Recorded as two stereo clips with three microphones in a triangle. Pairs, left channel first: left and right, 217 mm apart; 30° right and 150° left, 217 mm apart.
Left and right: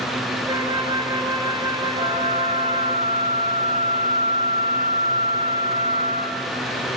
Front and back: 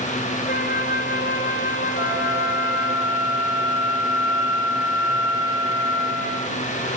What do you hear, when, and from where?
0.5 s a flute: 25° right, 1.5 m
1.9 s a flute: 140° right, 5.5 m